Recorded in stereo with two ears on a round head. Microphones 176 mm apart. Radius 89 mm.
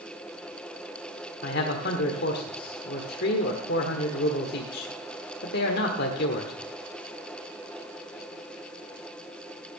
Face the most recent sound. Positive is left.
turn(degrees=55)  # may be behind; listen again after turning